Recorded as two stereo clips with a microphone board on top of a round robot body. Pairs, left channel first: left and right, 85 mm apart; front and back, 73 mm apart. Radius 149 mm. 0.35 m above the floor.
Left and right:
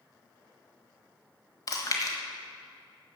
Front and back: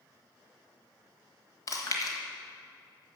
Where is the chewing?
45° left, 1.5 m.